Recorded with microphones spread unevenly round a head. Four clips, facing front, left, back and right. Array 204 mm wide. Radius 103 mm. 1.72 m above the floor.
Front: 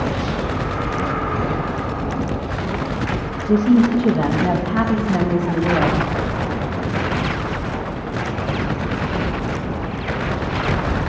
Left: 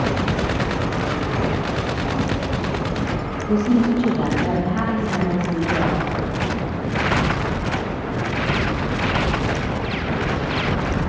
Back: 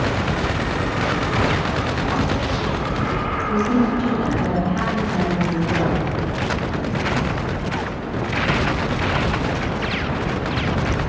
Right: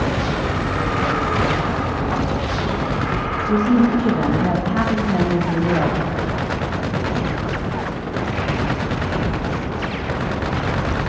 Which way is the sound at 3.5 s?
5° left.